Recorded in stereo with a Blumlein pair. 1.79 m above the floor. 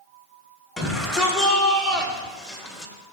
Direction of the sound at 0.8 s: 20° left.